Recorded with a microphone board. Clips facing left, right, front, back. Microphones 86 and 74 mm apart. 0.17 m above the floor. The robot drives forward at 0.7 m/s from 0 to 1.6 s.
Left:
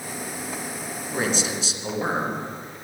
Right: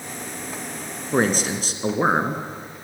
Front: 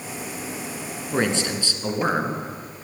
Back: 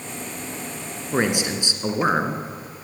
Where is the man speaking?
105° right, 2 m; by 2.4 s 115° right, 2.5 m.